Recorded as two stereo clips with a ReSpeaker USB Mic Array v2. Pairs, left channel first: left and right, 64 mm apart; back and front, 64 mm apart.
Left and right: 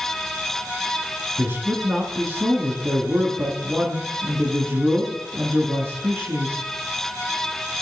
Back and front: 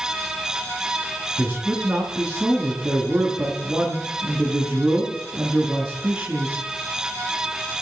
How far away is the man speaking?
About 1.3 m.